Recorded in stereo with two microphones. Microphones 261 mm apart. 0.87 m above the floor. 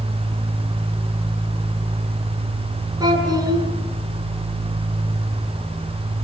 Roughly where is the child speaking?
Centre.